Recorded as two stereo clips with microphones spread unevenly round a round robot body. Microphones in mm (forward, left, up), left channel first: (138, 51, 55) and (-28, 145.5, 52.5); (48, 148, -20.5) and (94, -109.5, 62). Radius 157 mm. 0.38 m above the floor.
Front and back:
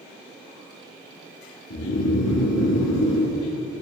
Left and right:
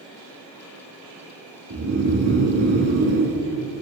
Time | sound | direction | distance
1.7 | snoring | 50° right | 1.7 m